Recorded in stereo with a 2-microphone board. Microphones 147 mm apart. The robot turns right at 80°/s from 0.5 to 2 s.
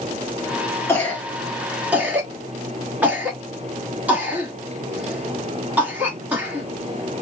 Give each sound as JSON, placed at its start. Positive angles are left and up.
{"t": 0.9, "sound": "a cough", "side_deg": 15, "distance_m": 1.3}